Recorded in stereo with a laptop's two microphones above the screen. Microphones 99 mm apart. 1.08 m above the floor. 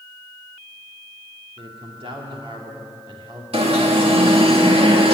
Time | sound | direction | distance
1.6 | a man speaking | 65° right (ahead or behind) | 2.5 m
3.5 | an alarm | 80° right | 1.6 m